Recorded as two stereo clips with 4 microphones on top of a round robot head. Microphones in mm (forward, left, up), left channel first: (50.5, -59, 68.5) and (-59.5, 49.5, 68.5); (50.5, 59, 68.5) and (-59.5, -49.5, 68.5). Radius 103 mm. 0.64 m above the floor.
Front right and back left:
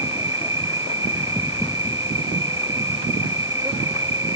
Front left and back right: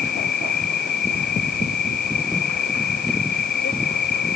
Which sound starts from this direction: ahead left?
An insect, at 0.0 s.